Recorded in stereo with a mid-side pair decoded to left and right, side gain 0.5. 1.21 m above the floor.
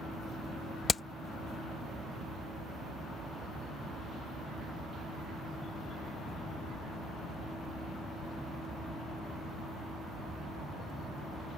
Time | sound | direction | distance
0.9 | hammering | 35° left | ?